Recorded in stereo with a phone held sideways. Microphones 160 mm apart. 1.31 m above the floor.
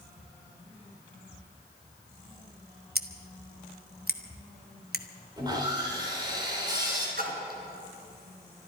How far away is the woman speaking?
No woman speaking in this recording.